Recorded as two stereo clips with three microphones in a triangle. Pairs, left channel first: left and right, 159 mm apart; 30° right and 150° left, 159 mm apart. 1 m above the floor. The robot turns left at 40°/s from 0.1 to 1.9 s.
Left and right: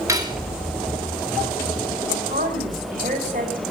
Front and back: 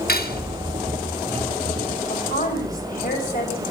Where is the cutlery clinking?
20° right, 1.5 m; by 0.5 s 35° right, 1.5 m.